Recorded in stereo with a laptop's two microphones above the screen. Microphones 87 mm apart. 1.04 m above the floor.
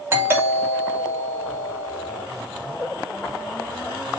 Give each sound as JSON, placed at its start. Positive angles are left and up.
{"t": 0.1, "sound": "a doorbell", "side_deg": -25, "distance_m": 3.0}